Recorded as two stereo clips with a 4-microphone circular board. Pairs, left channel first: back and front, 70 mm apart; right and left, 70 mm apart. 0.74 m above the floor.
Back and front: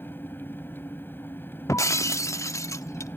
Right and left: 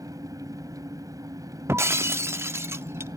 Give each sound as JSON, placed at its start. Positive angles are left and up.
{"t": 0.0, "sound": "an engine running", "azimuth_deg": 120, "distance_m": 2.0}
{"t": 1.7, "sound": "breaking glass", "azimuth_deg": 140, "distance_m": 0.8}